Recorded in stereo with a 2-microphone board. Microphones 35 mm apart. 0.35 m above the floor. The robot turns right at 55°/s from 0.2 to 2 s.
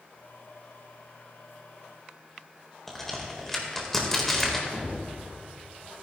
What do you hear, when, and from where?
2.9 s a crack: 10° left (ahead or behind), 1.5 m
4.7 s a thud: 15° right (ahead or behind), 3.5 m